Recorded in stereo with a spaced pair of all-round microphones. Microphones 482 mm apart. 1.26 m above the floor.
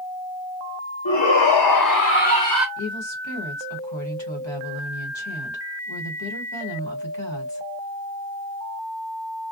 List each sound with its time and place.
1.1 s a shout: 70° left (ahead or behind), 0.9 m; by 2.7 s 5° right (ahead or behind), 0.5 m
2.8 s a woman speaking: 65° left (ahead or behind), 1.5 m